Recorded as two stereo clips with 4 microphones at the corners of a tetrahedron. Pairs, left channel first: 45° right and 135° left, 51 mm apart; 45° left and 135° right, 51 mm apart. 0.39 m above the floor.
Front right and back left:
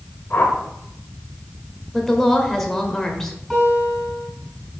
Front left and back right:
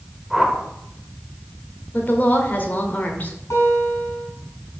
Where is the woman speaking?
35° left, 1.2 m.